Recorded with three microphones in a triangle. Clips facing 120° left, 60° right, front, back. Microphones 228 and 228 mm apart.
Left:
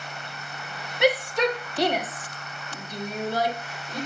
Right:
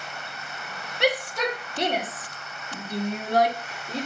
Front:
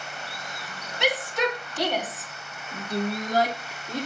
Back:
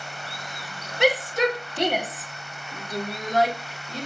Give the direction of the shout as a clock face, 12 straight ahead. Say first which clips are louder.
Left 3 dB, back 5 dB; 5 o'clock.